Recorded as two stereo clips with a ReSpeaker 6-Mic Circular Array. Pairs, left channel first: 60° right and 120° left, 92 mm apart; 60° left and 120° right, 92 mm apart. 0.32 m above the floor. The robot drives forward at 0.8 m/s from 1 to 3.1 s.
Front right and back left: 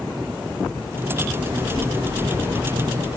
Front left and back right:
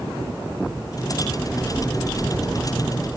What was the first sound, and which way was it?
A child speaking, 175° left.